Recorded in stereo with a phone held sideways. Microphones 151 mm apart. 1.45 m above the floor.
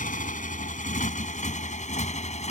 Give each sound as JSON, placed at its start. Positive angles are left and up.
{"t": 0.0, "sound": "a motorcycle", "side_deg": 60}